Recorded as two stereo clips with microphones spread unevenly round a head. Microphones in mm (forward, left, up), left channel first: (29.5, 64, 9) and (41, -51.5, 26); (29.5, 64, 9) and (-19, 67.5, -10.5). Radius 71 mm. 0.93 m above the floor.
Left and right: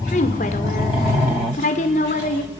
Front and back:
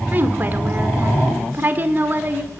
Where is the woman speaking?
130° left, 2.5 m.